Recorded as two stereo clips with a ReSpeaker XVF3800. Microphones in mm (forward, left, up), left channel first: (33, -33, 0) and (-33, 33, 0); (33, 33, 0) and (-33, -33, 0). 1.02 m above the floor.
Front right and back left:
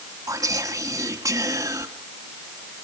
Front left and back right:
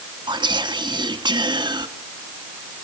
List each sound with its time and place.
0.3 s whispering: 170° right, 1.8 m